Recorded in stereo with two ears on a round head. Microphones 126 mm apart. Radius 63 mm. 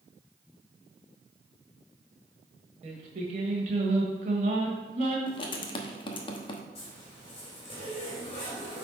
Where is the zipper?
45° left (ahead or behind), 3 m.